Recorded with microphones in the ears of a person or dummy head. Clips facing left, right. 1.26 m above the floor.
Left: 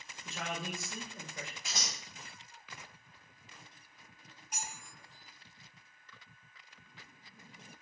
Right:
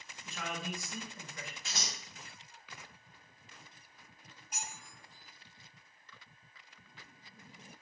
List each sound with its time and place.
0.2 s a man speaking: 20° left (ahead or behind), 0.5 m
1.6 s scissors: 15° left (ahead or behind), 1.1 m
4.5 s cutlery clinking: 65° left (ahead or behind), 1.4 m